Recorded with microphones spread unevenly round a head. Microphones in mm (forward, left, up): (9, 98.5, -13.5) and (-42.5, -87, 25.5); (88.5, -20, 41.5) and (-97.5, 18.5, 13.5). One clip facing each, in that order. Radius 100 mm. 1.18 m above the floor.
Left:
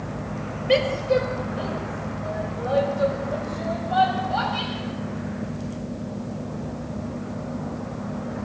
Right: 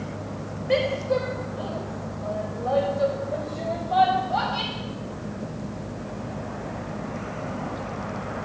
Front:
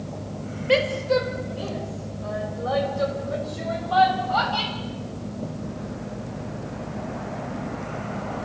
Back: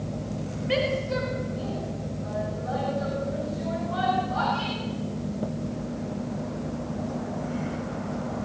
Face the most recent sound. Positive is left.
turn(degrees=-15)